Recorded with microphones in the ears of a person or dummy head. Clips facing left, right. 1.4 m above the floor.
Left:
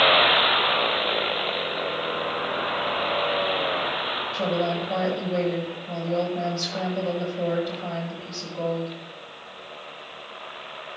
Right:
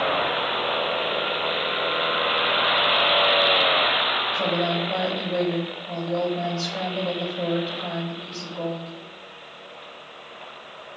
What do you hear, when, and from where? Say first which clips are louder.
4.3 s a woman speaking: even; 5° right (ahead or behind), 7.5 m